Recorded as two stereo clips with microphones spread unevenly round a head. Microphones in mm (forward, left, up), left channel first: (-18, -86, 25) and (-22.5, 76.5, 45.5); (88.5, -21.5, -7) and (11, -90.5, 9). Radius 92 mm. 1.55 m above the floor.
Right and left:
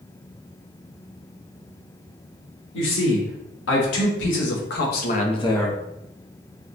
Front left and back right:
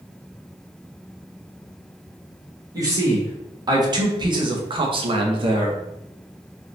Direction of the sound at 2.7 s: 85° right.